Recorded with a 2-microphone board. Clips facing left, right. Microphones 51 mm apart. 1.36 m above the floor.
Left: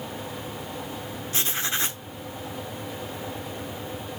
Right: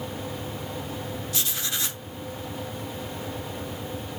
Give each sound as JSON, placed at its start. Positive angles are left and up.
{"t": 1.3, "sound": "writing", "side_deg": 35, "distance_m": 1.1}